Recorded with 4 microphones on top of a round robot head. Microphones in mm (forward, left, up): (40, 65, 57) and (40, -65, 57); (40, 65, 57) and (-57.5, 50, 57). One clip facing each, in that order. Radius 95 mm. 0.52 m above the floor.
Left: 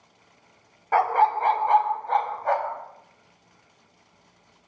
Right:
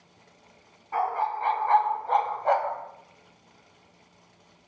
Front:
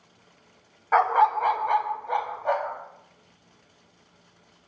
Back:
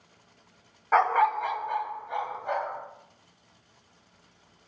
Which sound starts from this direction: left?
A dog barking, at 0.9 s.